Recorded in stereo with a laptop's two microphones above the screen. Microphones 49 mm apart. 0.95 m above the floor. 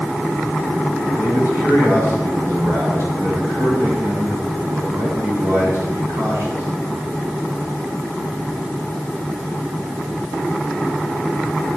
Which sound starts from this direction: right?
A man speaking, at 1.1 s.